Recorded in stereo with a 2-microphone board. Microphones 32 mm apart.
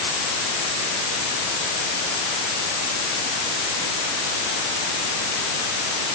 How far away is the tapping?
No tapping in this recording.